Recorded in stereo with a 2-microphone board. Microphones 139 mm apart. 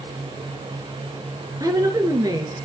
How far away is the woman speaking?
About 1.5 m.